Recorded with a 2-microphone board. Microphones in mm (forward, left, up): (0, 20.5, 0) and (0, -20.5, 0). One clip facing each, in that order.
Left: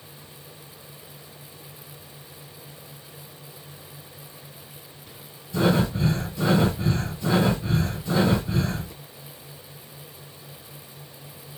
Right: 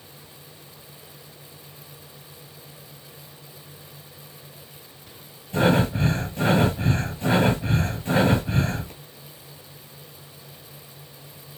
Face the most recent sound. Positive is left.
turn(degrees=-55)  # may be behind; listen again after turning